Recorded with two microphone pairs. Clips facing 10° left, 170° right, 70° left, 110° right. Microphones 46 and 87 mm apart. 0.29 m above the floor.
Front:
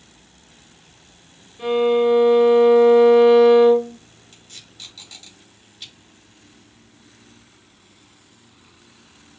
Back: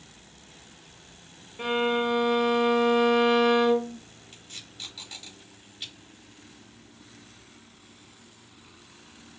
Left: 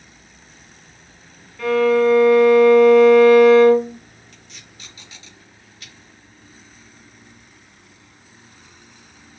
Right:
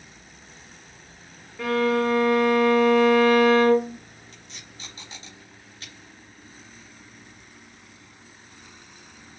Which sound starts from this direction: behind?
A violin, at 1.6 s.